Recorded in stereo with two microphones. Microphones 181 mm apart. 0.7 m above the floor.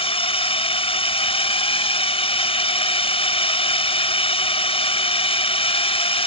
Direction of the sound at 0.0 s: 30° left (ahead or behind).